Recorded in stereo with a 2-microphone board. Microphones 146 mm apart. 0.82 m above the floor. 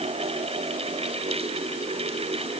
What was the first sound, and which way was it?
Only background noise.